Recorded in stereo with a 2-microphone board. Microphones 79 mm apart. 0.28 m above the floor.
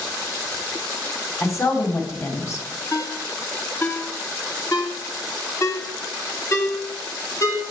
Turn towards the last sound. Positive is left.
turn(degrees=40)  # may be behind; listen again after turning